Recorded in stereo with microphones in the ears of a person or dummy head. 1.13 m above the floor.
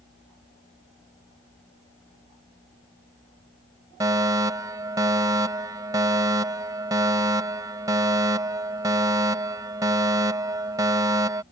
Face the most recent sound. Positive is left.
turn(degrees=-20)  # may be behind; listen again after turning